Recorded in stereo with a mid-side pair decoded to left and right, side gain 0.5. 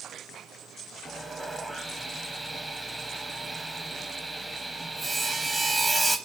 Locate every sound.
1.1 s sawing: 10° right, 0.6 m